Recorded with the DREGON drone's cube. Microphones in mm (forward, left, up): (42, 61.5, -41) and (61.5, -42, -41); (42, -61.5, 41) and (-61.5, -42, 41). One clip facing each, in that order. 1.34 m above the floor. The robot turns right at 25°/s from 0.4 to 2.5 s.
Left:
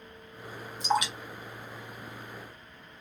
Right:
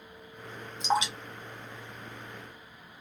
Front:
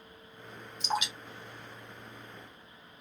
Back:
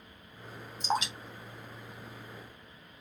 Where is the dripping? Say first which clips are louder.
Even, back 2 dB; 145° right, 0.9 m; by 1.1 s 135° right, 0.9 m.